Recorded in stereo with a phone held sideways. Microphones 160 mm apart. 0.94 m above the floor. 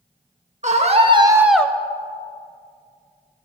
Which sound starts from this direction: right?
A scream, at 0.6 s.